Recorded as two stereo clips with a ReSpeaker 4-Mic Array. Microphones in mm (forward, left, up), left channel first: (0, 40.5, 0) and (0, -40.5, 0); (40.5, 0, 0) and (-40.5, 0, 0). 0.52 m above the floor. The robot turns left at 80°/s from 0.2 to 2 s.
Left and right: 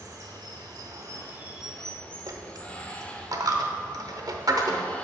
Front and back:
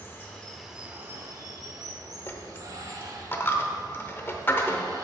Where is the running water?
55° right, 0.8 m; by 5.0 s 160° left, 0.8 m.